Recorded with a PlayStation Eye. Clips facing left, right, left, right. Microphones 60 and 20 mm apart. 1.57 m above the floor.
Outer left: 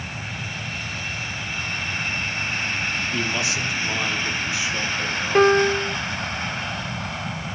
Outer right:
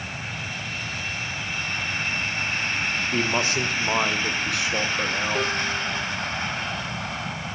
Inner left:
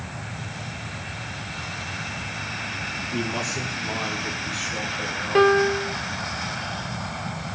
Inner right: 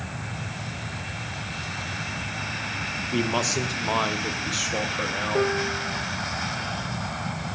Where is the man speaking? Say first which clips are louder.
Outer right 1 dB, inner right 4 dB; 40° right (ahead or behind), 2 m; by 5.5 s 65° right (ahead or behind), 4.5 m.